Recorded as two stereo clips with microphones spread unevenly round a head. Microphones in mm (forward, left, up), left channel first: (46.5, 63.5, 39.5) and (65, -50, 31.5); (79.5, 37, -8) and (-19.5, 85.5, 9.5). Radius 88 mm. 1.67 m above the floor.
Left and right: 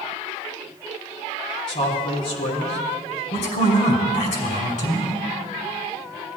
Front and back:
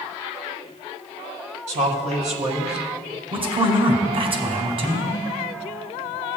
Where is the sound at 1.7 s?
150° left, 1.8 m; by 2.8 s 130° left, 1.7 m.